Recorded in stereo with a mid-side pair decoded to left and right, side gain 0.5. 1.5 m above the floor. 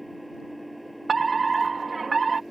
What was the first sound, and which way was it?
An engine running, 5° right.